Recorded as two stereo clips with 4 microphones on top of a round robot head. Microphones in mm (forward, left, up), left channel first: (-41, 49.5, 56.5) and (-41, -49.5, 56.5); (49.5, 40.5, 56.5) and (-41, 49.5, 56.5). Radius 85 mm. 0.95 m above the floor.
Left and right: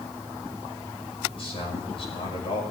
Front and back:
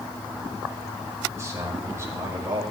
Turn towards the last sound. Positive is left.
turn(degrees=115)